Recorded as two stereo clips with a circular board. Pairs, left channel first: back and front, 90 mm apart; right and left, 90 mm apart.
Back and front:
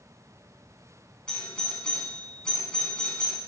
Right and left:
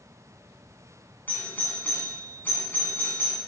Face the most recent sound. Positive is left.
turn(degrees=-115)